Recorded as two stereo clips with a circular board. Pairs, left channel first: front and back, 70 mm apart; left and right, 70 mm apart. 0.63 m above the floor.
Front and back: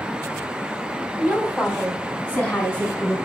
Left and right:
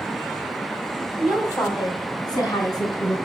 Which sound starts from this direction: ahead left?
A woman speaking, at 1.2 s.